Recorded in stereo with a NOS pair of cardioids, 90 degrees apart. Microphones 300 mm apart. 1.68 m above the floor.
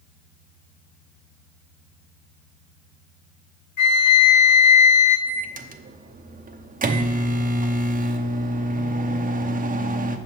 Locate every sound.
3.8 s a flute: 70° left, 1.6 m
5.3 s a microwave: 30° right, 0.7 m